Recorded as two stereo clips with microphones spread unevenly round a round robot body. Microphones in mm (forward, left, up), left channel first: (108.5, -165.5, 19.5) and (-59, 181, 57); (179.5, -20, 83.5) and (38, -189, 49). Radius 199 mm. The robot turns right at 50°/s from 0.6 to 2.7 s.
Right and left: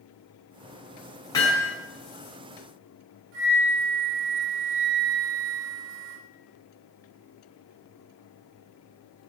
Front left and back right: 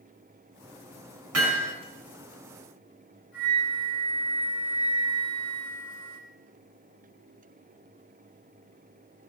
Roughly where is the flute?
Behind left.